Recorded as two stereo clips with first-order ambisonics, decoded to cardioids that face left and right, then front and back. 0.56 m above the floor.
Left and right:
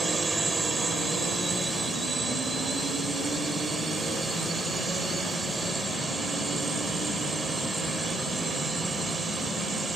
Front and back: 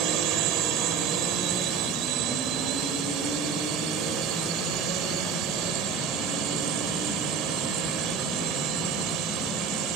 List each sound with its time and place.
0.0 s a drone: 165° right